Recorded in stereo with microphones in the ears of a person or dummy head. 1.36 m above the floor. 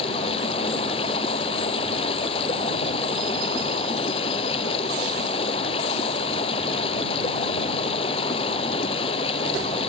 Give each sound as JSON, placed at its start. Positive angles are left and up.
{"t": 0.0, "sound": "running water", "side_deg": 35}